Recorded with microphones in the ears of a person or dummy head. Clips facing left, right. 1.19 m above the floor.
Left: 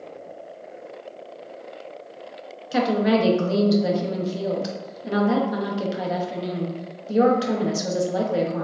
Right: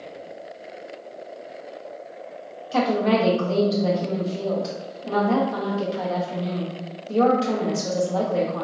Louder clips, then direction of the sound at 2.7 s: Even; 15° left (ahead or behind).